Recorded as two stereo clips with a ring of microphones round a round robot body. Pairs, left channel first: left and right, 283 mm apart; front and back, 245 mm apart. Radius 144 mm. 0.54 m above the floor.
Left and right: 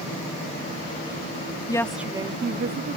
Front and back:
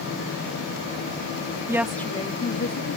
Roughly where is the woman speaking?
Behind left.